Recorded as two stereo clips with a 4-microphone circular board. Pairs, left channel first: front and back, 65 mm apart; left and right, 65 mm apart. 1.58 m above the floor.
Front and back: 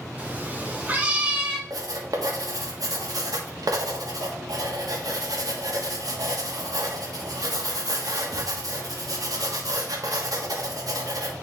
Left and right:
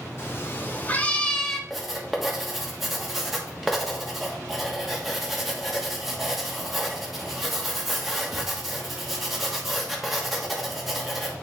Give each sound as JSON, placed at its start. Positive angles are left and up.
{"t": 0.2, "sound": "a cat meowing", "azimuth_deg": 125, "distance_m": 1.3}
{"t": 1.7, "sound": "writing", "azimuth_deg": 180, "distance_m": 1.3}